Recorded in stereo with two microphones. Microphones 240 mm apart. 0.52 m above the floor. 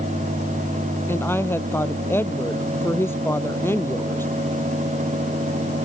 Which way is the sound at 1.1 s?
10° left (ahead or behind).